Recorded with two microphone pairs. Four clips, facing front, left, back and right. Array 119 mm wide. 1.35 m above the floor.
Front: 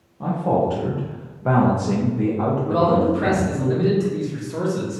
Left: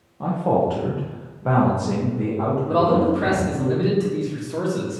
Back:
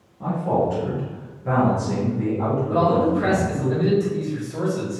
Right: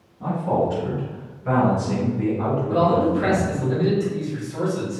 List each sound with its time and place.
0.2 s a man speaking: 85° left, 0.7 m; by 3.7 s 10° right, 1.6 m
2.7 s a man speaking: 60° left, 1.3 m